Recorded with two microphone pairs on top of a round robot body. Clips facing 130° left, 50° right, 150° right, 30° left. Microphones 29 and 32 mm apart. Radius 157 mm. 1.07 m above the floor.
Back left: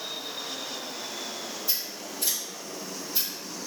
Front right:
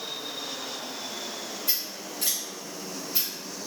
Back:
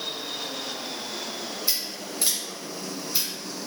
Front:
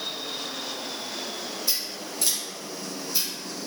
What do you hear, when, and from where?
1.7 s scissors: 75° right, 1.0 m